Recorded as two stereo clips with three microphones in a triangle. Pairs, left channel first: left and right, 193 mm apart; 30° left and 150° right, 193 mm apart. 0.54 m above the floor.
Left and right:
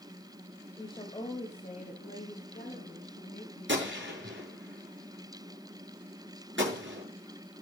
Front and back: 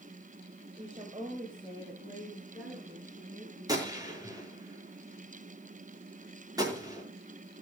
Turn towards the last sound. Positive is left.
turn(degrees=-80)